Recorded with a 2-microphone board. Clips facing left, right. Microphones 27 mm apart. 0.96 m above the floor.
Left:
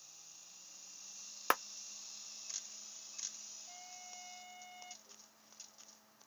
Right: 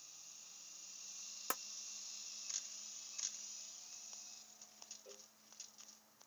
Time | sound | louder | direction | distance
1.5 | a clap | left 11 dB | 50° left (ahead or behind) | ?
3.7 | a trumpet | left 3 dB | 80° left | ?
5.0 | a cowbell | right 3 dB | 75° right (ahead or behind) | ?